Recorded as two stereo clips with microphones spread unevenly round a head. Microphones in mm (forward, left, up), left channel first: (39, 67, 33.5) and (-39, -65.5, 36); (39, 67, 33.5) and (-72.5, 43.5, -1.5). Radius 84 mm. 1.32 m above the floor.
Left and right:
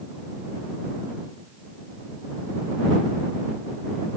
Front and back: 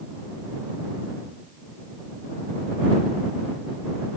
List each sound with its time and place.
Only background noise.